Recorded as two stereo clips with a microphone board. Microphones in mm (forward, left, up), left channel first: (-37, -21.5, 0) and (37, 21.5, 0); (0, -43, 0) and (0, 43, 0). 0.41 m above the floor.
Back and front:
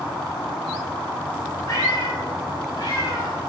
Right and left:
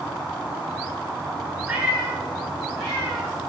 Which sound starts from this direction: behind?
A cat meowing, at 1.7 s.